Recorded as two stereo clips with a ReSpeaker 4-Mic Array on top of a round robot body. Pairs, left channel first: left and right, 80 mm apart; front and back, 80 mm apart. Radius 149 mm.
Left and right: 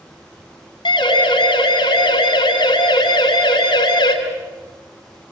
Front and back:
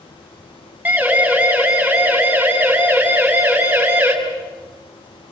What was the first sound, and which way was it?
A siren, 105° left.